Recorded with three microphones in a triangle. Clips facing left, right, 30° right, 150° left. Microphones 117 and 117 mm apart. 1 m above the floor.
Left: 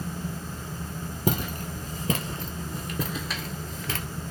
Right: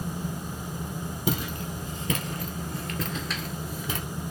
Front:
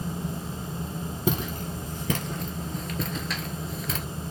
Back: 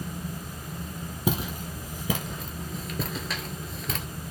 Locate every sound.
1.3 s footsteps: 70° left, 1.4 m; by 4.0 s 115° right, 1.0 m